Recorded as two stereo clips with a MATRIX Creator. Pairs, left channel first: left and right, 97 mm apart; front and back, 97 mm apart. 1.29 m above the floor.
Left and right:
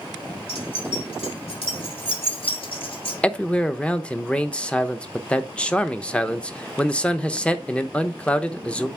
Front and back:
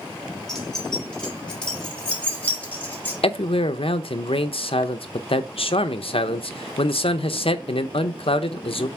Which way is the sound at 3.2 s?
10° left.